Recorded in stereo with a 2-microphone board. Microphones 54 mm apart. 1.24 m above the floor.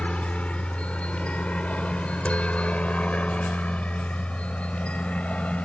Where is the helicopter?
20° left (ahead or behind); by 5.7 s 25° left (ahead or behind).